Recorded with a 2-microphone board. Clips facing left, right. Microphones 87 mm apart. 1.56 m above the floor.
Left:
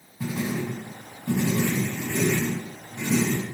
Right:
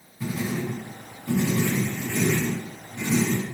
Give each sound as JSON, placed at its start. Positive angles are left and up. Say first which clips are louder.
{"t": 0.2, "sound": "writing", "louder": "even", "side_deg": 55, "distance_m": 1.4}